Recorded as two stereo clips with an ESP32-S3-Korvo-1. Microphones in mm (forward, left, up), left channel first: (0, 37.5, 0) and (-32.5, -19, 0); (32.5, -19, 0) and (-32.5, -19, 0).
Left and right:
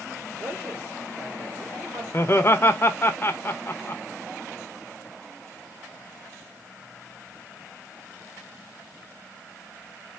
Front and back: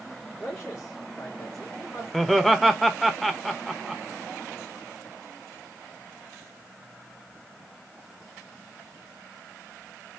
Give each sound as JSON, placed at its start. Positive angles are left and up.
{"t": 0.4, "sound": "a man speaking", "azimuth_deg": -70, "distance_m": 2.0}
{"t": 2.1, "sound": "laughter", "azimuth_deg": 90, "distance_m": 0.7}